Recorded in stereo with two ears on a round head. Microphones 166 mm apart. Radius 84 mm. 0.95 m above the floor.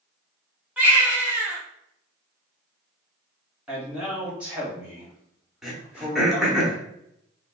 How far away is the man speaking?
About 1.5 m.